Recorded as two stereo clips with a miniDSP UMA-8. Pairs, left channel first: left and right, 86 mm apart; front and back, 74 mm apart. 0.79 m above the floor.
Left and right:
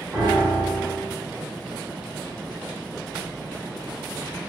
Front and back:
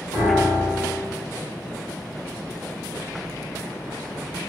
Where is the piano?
25° right, 1.5 m.